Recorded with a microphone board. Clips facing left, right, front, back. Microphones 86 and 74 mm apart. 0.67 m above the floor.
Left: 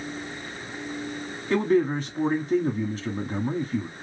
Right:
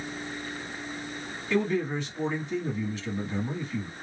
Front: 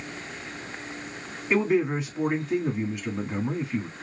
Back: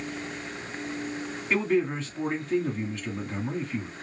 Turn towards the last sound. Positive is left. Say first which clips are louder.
# left 5 dB, front 2 dB
turn(degrees=75)